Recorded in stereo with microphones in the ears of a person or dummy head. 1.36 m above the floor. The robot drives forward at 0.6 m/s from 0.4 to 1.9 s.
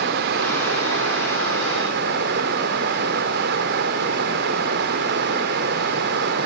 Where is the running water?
60° right (ahead or behind), 1.6 m; by 6.5 s 55° right (ahead or behind), 1.7 m.